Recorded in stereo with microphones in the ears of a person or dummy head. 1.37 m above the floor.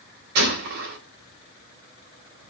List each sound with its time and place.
0.3 s a gunshot: 70° right (ahead or behind), 3.5 m